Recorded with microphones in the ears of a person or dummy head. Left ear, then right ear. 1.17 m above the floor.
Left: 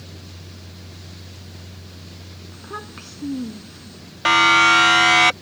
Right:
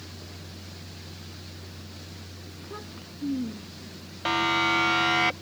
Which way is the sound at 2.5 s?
65° left (ahead or behind).